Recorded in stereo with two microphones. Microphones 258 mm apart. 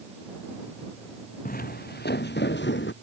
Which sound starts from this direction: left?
Footsteps, at 1.4 s.